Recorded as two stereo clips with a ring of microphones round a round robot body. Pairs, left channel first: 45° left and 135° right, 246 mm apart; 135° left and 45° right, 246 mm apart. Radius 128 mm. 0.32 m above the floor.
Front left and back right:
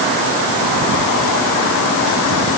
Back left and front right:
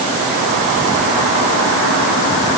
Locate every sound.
Only background noise.